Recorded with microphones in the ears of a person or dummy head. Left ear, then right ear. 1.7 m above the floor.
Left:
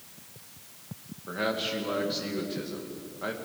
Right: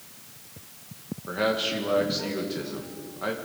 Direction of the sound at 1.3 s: 10° right (ahead or behind).